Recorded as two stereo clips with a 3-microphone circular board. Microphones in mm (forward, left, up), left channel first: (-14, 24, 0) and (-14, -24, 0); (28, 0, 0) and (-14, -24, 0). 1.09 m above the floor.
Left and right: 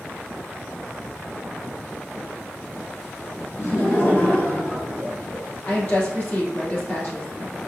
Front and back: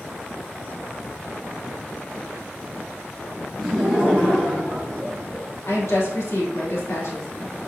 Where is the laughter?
115° left, 0.7 m; by 5.5 s 145° left, 3 m.